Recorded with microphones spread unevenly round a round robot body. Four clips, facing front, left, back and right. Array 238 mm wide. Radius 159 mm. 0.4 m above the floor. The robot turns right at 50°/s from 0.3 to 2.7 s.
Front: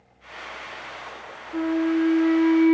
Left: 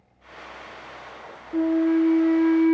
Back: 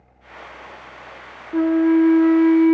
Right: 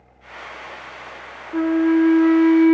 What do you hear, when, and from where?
1.5 s a flute: 155° right, 0.5 m; by 2.7 s 95° right, 0.5 m